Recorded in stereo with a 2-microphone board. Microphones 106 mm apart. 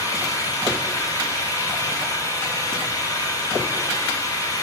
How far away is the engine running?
About 5 m.